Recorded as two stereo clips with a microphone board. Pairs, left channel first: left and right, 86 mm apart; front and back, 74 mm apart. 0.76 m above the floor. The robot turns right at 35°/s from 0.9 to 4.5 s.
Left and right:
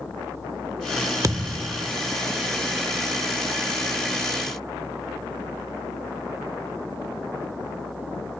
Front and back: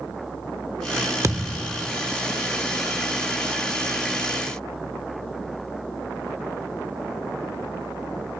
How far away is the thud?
About 0.8 m.